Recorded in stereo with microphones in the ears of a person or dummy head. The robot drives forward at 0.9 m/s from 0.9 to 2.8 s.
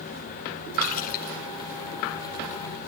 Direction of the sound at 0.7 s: 50° left (ahead or behind).